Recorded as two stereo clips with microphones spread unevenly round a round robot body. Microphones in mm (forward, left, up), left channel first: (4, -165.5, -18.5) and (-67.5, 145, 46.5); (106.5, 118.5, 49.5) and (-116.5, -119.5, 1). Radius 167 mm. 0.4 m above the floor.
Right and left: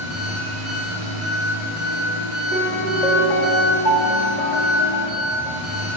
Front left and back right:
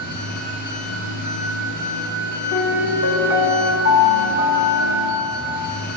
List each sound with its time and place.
0.0 s an engine running: 105° left, 2.5 m
2.5 s a piano: 25° left, 1.3 m